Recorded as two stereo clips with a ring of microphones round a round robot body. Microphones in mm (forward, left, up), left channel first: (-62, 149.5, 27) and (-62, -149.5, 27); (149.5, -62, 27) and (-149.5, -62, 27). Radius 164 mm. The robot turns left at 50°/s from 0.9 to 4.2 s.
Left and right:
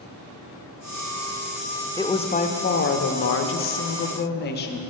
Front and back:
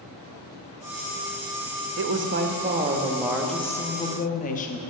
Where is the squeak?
No squeak in this recording.